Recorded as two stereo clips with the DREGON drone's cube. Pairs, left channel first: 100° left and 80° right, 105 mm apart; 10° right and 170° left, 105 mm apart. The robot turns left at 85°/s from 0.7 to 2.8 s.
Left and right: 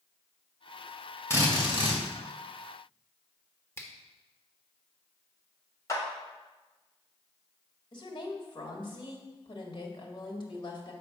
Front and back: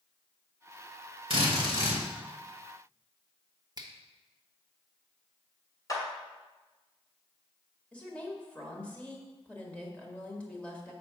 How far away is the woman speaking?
About 1.7 m.